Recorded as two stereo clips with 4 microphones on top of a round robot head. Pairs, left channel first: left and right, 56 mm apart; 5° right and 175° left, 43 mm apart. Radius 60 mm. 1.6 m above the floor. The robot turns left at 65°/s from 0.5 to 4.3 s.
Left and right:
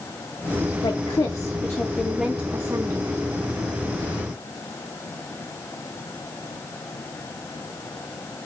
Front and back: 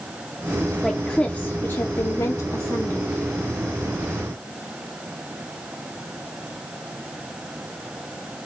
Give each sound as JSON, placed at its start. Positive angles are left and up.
{"t": 0.8, "sound": "a woman speaking", "azimuth_deg": 85, "distance_m": 0.8}